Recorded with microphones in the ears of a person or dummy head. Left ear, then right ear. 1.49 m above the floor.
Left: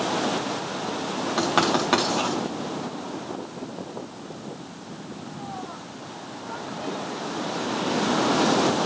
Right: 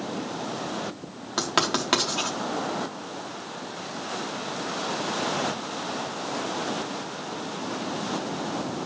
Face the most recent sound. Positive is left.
turn(degrees=-10)  # may be behind; listen again after turning